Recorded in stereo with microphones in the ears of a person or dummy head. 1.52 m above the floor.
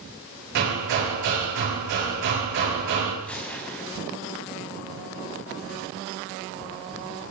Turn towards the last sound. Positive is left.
turn(degrees=10)  # may be behind; listen again after turning